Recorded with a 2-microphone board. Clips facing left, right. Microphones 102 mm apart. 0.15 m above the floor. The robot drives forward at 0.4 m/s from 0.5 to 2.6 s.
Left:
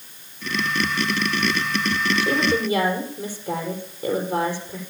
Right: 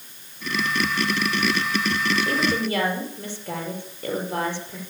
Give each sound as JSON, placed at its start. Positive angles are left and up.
{"t": 2.2, "sound": "a woman speaking", "side_deg": 10, "distance_m": 5.0}